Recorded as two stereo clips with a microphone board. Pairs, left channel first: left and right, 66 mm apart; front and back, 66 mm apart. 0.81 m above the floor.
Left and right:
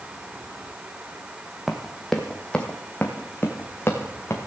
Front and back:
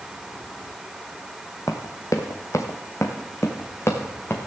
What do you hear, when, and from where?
1.7 s running footsteps: 5° right, 1.4 m; by 4.4 s 45° left, 2.5 m